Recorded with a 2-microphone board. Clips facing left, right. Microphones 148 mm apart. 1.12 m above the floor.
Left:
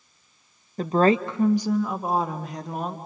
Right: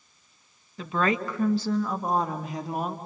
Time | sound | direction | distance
0.8 | a woman speaking | 45° left (ahead or behind) | 1.0 m